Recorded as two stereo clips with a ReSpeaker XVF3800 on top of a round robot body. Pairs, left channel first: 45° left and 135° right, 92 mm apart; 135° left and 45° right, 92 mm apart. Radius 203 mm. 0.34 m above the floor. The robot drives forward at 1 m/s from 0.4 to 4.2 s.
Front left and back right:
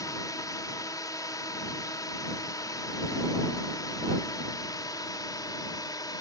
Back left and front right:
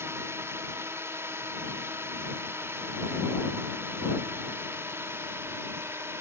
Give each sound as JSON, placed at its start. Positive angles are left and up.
{"t": 0.0, "sound": "a drone", "azimuth_deg": 10}